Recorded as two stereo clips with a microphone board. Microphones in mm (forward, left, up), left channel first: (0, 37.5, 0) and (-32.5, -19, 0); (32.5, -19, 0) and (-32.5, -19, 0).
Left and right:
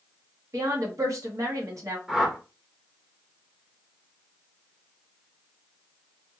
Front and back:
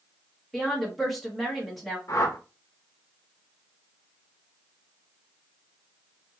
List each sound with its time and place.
0.5 s a woman speaking: 90° right, 2 m
2.1 s a whoosh: 35° right, 0.9 m